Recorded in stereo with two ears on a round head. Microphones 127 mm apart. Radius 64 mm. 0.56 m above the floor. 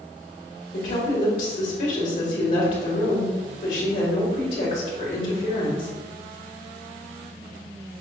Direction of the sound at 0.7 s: 65° left (ahead or behind).